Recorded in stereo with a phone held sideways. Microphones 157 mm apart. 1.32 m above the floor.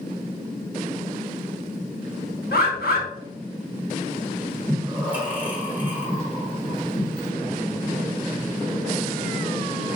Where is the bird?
75° left (ahead or behind), 0.8 m.